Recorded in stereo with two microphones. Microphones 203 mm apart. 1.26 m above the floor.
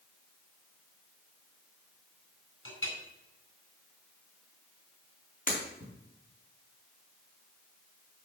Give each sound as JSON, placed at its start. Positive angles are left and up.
{"t": 2.6, "sound": "a clink", "side_deg": 80, "distance_m": 3.5}
{"t": 5.5, "sound": "breaking glass", "side_deg": 45, "distance_m": 3.5}